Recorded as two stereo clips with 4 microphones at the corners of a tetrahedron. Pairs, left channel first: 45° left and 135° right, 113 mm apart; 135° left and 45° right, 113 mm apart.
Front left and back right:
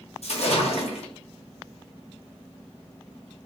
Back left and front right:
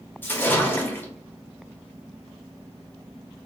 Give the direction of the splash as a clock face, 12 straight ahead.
10 o'clock.